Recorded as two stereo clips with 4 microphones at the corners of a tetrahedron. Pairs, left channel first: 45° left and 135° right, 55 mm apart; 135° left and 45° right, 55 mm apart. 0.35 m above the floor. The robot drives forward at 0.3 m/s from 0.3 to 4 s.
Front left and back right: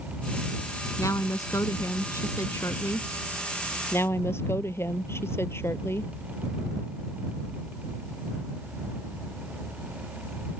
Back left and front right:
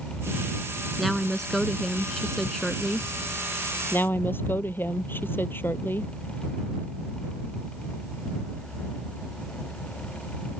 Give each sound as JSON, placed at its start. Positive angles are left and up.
{"t": 1.0, "sound": "a woman speaking", "azimuth_deg": 45}
{"t": 3.9, "sound": "a woman speaking", "azimuth_deg": 85}